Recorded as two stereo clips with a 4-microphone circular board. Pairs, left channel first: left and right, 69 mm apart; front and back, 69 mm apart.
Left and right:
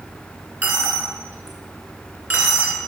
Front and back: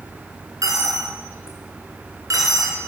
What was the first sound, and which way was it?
A dropped coin, 155° right.